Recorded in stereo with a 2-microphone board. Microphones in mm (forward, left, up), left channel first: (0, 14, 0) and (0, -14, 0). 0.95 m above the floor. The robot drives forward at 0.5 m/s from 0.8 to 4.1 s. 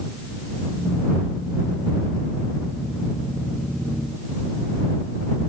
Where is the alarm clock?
No alarm clock in this recording.